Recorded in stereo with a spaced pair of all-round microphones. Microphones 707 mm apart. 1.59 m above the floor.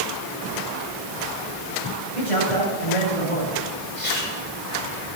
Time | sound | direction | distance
2.1 | a man speaking | 50° left (ahead or behind) | 8.5 m
4.0 | chewing | 80° left | 6 m